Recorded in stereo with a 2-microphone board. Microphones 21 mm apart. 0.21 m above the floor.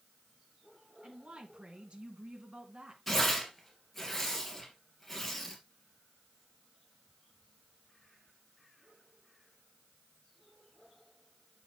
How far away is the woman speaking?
About 1.8 m.